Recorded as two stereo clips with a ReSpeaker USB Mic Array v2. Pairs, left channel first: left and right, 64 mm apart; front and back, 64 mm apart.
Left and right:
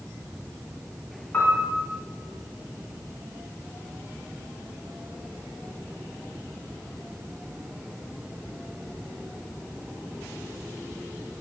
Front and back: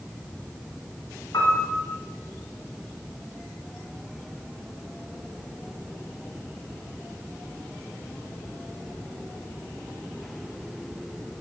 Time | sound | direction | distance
1.3 | a piano | 25° left | 2.5 m